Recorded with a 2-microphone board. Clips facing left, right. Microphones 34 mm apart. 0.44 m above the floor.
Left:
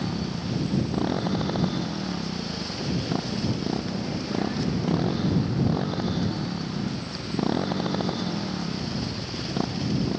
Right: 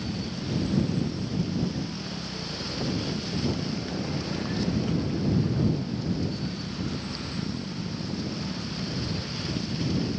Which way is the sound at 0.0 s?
65° left (ahead or behind).